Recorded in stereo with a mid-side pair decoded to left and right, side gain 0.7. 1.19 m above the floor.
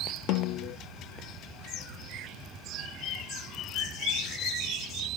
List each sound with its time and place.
0.3 s a snare drum: 60° left, 0.5 m